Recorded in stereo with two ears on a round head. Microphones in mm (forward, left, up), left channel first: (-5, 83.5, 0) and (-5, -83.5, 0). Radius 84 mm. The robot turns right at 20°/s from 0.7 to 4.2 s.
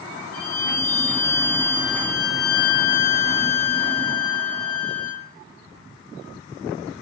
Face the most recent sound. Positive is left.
turn(degrees=160)